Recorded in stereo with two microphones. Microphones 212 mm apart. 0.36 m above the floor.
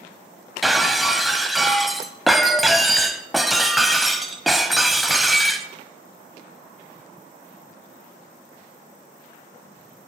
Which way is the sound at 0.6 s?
Centre (ahead or behind).